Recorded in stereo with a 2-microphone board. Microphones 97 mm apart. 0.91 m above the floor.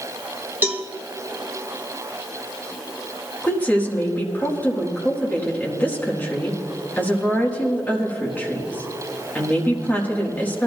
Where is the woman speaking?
15° left (ahead or behind), 1.9 m.